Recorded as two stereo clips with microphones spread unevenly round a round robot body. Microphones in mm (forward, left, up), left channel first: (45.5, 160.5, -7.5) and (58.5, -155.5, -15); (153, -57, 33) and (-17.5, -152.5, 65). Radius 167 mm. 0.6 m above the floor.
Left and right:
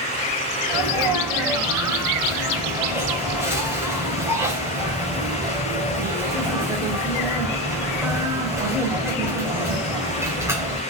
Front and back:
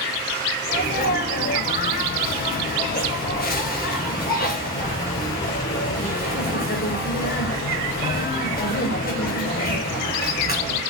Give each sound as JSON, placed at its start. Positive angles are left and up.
{"t": 0.7, "sound": "a sneeze", "azimuth_deg": -5, "distance_m": 3.5}